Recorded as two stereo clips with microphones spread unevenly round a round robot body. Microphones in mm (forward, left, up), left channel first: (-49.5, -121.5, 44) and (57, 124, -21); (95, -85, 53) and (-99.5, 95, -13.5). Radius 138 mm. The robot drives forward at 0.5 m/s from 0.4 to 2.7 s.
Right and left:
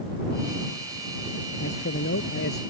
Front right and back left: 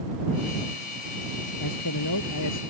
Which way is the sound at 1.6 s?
65° right.